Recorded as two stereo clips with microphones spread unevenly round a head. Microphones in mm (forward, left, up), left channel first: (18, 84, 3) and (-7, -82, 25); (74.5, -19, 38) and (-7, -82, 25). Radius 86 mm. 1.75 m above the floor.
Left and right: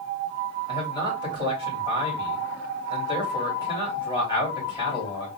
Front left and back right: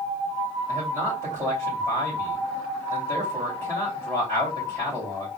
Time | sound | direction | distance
0.7 | a man speaking | 150° left | 3 m